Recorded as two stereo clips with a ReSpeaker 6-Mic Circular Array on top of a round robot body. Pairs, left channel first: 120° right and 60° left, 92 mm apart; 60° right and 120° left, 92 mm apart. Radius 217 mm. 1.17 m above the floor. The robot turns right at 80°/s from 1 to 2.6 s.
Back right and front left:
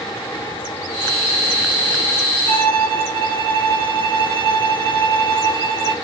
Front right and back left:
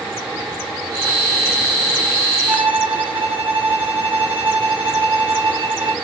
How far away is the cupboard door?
No cupboard door in this recording.